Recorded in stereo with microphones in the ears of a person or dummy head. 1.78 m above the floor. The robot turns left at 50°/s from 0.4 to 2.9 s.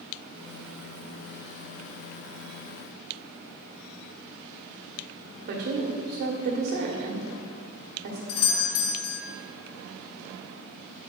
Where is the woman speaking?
55° right (ahead or behind), 1.4 m.